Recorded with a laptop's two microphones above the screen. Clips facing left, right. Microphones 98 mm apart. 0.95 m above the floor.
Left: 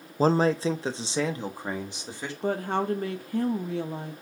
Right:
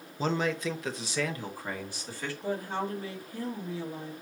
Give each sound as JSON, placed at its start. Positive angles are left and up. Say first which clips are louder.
{"t": 0.2, "sound": "a man speaking", "louder": "left 7 dB", "side_deg": 40, "distance_m": 0.5}
{"t": 2.4, "sound": "a woman speaking", "louder": "left 6 dB", "side_deg": 60, "distance_m": 0.9}